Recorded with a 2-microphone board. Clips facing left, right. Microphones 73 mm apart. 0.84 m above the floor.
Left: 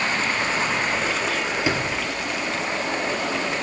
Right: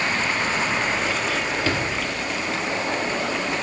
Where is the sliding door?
15° left (ahead or behind), 1.9 m.